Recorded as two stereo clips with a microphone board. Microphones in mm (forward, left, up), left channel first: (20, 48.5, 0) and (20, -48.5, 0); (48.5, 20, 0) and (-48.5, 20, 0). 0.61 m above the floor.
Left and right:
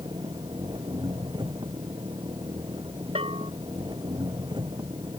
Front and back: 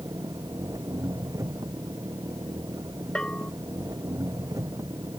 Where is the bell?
80° right.